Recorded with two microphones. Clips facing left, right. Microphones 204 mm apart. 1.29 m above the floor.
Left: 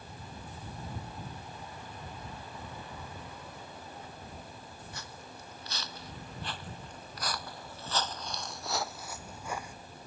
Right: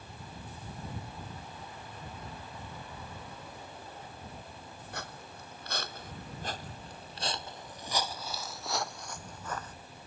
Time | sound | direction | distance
4.9 | footsteps | 70° right (ahead or behind) | ?